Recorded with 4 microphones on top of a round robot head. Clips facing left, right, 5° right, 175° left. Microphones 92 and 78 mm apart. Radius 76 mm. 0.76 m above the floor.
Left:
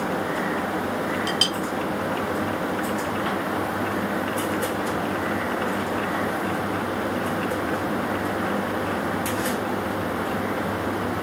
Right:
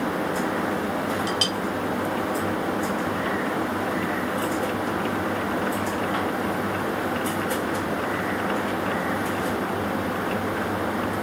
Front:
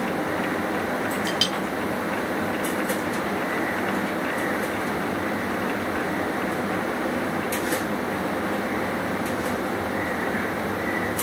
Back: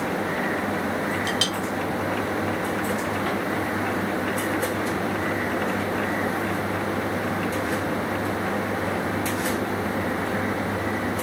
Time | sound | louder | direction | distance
1.3 | a clink | even, even | 125° left | 1.6 m